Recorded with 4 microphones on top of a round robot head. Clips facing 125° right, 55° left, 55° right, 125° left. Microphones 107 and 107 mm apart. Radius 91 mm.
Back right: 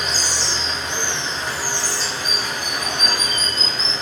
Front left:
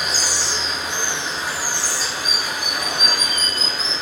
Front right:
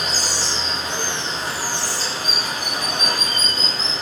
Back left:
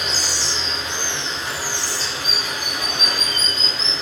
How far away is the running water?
About 0.9 m.